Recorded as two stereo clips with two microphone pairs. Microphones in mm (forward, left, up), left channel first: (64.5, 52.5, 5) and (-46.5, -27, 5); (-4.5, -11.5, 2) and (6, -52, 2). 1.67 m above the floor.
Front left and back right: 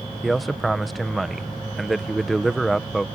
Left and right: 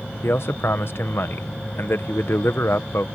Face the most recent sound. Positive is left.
turn(degrees=125)